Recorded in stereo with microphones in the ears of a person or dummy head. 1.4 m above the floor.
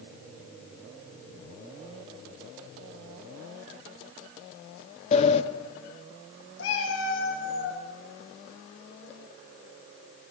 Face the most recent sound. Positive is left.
turn(degrees=75)  # may be behind; listen again after turning